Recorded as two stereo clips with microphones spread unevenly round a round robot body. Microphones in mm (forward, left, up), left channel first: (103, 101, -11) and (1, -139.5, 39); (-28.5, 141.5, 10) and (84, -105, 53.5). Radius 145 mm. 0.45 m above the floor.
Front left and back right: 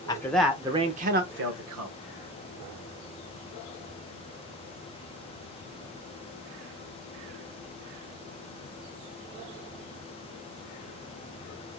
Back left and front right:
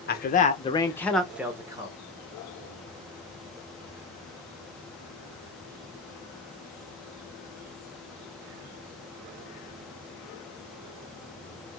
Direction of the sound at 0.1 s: 125° left.